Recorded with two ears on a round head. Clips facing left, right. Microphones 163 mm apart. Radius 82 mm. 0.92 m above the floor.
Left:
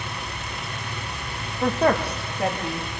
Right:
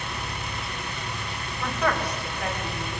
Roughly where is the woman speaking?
Left.